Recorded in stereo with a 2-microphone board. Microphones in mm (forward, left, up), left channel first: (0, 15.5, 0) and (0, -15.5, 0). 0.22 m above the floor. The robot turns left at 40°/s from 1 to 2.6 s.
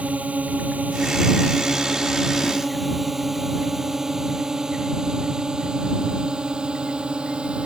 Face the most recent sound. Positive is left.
turn(degrees=-35)  # may be behind; listen again after turning